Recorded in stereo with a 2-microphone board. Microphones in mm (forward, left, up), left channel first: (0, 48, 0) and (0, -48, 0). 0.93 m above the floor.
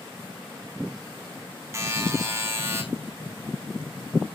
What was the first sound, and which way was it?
A buzzer, 30° right (ahead or behind).